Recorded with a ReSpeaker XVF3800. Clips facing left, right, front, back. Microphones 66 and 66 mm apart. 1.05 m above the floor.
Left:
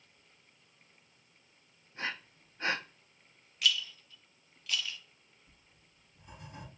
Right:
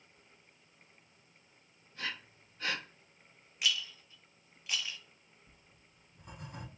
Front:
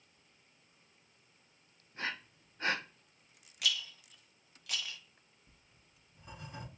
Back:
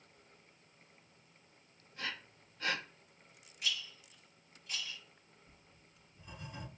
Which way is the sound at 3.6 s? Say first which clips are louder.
Left 2 dB, front 3 dB; 20° right.